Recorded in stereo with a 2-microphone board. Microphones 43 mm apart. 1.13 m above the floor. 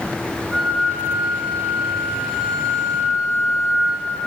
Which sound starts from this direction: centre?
A flute, at 0.5 s.